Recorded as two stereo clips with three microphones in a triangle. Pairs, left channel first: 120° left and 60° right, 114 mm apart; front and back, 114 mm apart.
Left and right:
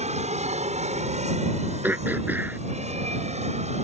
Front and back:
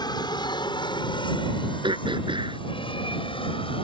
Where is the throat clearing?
135° right.